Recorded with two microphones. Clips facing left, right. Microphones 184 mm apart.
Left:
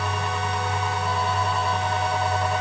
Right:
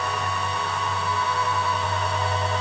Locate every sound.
Only background noise.